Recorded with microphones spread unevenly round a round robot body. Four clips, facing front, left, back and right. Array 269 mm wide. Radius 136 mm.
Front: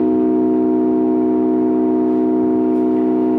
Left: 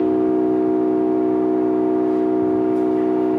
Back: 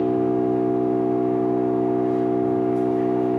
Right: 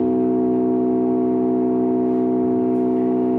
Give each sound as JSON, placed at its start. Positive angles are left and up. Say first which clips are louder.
{"t": 0.0, "sound": "an engine running", "louder": "left 1 dB, front 6 dB", "azimuth_deg": -25, "distance_m": 4.5}